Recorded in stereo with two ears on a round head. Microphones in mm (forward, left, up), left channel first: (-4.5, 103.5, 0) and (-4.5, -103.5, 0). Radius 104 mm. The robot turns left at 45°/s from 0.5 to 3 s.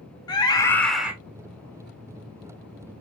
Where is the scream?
20° left (ahead or behind), 1.8 m; by 1.1 s 5° right (ahead or behind), 1.8 m.